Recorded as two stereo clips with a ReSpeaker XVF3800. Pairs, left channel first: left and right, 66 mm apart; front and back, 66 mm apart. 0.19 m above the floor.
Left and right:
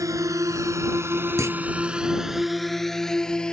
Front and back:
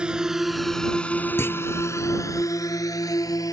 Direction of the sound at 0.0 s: 105° right.